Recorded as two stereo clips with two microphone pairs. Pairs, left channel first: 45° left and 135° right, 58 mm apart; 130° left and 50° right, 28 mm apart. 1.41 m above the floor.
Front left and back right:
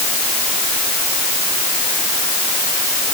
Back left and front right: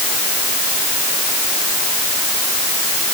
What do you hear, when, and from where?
Only background noise.